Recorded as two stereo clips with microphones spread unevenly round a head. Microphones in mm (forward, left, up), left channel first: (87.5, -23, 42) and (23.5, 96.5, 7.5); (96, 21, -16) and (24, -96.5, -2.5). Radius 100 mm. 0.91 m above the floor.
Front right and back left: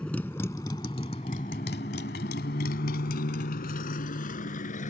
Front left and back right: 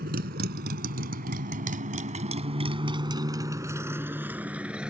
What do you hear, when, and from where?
0.0 s a motorcycle: 145° right; by 4.9 s 40° right